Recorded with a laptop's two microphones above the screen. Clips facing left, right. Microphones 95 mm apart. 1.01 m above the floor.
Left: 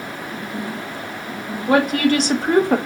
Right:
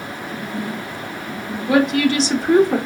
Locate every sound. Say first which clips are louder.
1.7 s a woman speaking: even; 45° left (ahead or behind), 1.0 m; by 2.8 s 70° left (ahead or behind), 0.6 m